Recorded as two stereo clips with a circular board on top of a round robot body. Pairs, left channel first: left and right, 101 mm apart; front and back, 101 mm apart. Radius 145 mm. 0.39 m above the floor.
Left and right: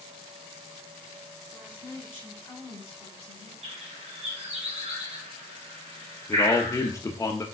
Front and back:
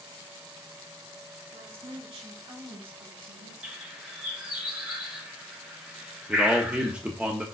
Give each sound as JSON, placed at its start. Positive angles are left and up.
{"t": 1.5, "sound": "a woman speaking", "azimuth_deg": 160, "distance_m": 4.5}
{"t": 3.6, "sound": "a bird", "azimuth_deg": -100, "distance_m": 3.0}
{"t": 6.3, "sound": "a man speaking", "azimuth_deg": 110, "distance_m": 1.1}